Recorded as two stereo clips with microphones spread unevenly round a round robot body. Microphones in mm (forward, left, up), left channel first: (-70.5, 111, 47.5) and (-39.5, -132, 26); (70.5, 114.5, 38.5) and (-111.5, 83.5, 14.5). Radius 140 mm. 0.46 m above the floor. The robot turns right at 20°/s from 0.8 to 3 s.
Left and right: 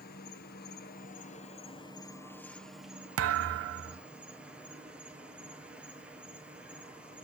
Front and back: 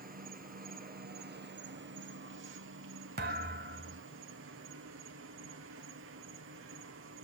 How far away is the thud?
About 0.5 m.